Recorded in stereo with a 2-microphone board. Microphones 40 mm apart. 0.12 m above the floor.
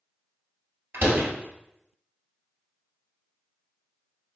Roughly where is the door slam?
Right.